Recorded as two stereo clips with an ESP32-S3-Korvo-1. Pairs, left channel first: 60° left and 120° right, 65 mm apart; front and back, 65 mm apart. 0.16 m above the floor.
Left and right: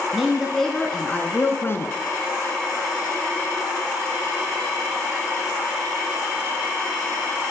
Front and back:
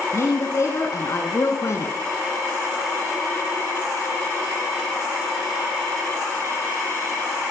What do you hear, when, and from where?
0.1 s a woman speaking: 35° right, 2.5 m; by 1.9 s 35° left, 1.9 m